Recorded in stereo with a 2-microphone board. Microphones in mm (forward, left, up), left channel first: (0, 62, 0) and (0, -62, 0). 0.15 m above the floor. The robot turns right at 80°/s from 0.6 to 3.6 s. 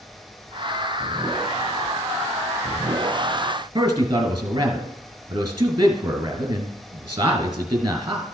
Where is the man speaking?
35° right (ahead or behind), 2 m.